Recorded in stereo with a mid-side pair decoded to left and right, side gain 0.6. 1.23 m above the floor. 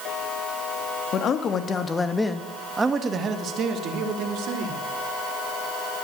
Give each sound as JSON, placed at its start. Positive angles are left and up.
{"t": 1.1, "sound": "a man speaking", "azimuth_deg": 45, "distance_m": 1.9}